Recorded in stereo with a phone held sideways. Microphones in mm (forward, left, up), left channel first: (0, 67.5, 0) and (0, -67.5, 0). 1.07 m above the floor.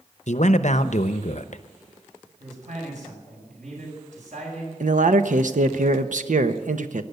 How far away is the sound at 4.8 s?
About 1.0 m.